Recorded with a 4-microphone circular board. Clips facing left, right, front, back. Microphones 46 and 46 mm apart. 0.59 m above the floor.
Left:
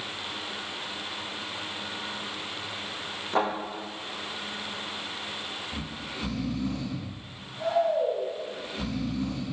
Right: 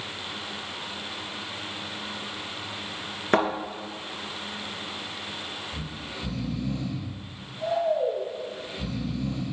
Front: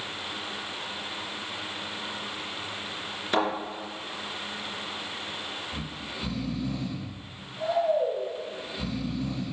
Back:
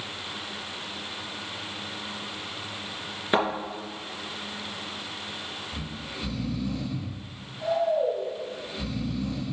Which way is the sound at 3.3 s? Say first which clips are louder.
Right 4 dB, back 2 dB; 110° right.